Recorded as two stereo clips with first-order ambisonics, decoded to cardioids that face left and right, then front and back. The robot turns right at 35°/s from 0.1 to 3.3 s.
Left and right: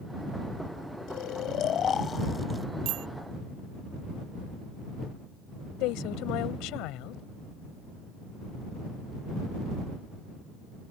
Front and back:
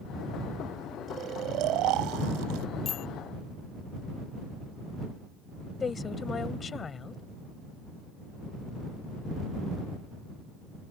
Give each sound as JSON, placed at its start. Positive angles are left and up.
{"t": 1.1, "sound": "snoring", "azimuth_deg": 120}
{"t": 2.9, "sound": "a bicycle bell", "azimuth_deg": -60}
{"t": 5.8, "sound": "a woman speaking", "azimuth_deg": 70}